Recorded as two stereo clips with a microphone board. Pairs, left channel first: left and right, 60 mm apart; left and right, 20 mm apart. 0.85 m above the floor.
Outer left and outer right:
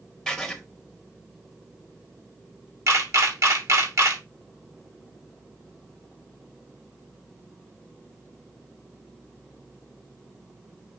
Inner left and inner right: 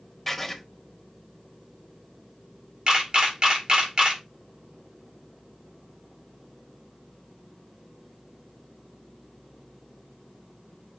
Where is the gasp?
No gasp in this recording.